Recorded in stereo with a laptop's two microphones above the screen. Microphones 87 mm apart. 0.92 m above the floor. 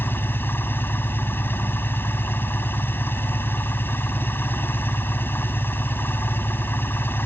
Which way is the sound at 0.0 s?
25° left (ahead or behind).